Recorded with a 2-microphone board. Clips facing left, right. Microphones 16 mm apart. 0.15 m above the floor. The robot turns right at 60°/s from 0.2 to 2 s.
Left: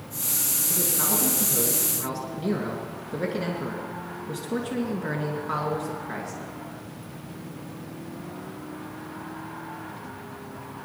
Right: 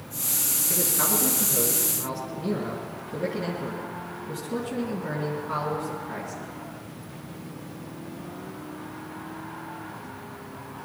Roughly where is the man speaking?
Ahead right.